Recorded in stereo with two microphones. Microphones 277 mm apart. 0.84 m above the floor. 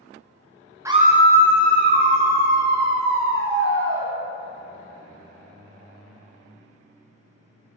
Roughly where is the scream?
Centre.